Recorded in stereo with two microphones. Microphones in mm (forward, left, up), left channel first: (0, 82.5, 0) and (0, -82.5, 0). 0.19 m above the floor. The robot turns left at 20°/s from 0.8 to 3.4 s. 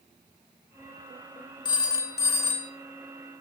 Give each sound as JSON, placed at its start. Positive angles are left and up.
{"t": 1.6, "sound": "a phone ringing", "side_deg": 25, "distance_m": 1.3}